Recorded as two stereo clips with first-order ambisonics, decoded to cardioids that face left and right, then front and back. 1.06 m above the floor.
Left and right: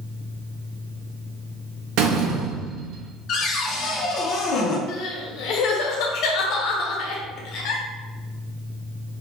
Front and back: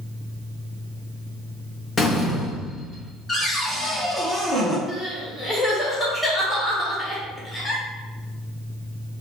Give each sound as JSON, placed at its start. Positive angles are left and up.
{"t": 2.0, "sound": "a door slam", "azimuth_deg": -65, "distance_m": 0.9}
{"t": 3.3, "sound": "a cupboard door", "azimuth_deg": 70, "distance_m": 0.7}
{"t": 4.9, "sound": "crying", "azimuth_deg": 75, "distance_m": 1.0}